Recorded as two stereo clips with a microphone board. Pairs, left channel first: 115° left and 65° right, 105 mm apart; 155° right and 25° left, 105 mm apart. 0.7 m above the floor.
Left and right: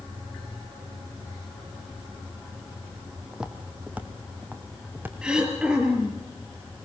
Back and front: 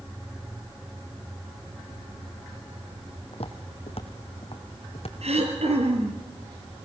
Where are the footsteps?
150° right, 1.7 m; by 5.1 s 140° right, 2.5 m.